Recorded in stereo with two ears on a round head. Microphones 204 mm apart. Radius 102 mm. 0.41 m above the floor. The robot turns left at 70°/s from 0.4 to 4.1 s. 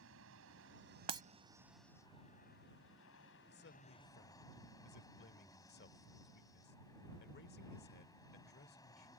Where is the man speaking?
110° left; by 9.1 s 65° left.